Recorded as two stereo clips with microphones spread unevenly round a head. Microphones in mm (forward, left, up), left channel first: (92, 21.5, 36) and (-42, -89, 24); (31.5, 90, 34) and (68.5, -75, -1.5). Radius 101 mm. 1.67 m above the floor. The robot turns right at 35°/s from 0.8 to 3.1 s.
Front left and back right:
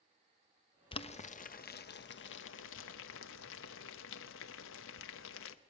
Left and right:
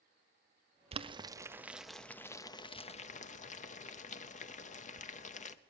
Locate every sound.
0.9 s boiling: 25° right, 0.8 m; by 5.5 s 55° left, 0.8 m